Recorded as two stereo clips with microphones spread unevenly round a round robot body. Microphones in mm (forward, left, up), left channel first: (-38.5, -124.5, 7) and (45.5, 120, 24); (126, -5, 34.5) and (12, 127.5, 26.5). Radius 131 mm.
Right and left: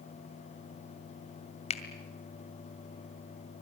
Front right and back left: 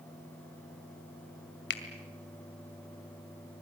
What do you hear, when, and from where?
1.7 s a finger snap: 45° right, 2 m